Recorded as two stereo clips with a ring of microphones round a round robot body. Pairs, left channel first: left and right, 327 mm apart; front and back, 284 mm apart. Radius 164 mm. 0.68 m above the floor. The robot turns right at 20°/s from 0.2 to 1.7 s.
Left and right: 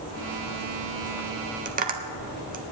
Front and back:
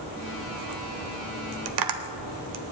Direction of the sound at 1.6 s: 160° right.